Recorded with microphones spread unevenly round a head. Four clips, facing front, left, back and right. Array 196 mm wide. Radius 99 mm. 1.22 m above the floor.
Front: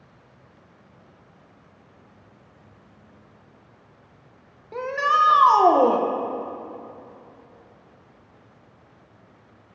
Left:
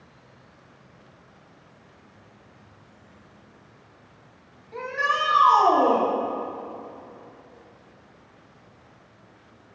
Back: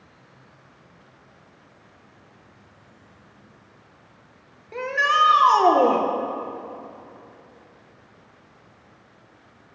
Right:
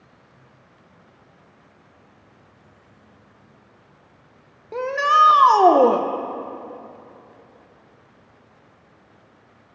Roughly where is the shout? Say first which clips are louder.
Right 8 dB, even; right.